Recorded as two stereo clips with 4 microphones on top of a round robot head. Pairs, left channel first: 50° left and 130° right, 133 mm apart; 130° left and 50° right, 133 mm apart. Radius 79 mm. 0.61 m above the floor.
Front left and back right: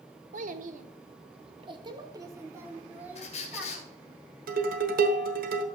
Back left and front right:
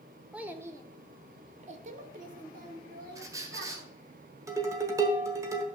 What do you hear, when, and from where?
0.3 s a child speaking: 130° right, 1.3 m; by 3.9 s 45° right, 3 m
3.1 s a squeak: 15° left, 2 m
4.5 s dishes clattering: 120° right, 1.4 m